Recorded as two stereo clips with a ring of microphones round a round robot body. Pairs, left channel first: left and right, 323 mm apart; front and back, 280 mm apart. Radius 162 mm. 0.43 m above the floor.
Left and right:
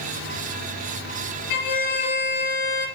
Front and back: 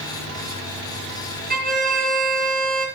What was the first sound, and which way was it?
A violin, 120° left.